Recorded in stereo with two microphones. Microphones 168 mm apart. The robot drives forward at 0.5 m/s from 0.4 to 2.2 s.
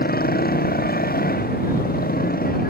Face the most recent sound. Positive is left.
turn(degrees=65)  # may be behind; listen again after turning